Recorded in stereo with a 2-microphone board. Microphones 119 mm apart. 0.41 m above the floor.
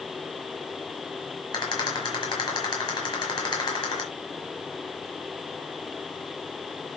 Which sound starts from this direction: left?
A rattle, at 1.5 s.